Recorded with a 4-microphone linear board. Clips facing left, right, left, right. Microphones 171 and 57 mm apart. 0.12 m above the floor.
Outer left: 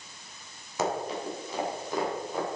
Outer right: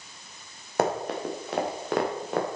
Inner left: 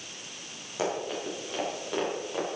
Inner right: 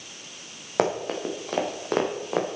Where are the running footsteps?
60° right (ahead or behind), 3.5 m; by 2.5 s 75° right (ahead or behind), 4 m.